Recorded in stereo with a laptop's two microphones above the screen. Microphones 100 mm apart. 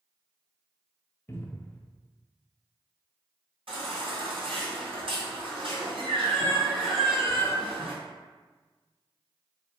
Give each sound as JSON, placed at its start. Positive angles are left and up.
{"t": 1.3, "sound": "a cupboard door", "side_deg": 25, "distance_m": 0.5}
{"t": 3.7, "sound": "a baby crying", "side_deg": -70, "distance_m": 1.8}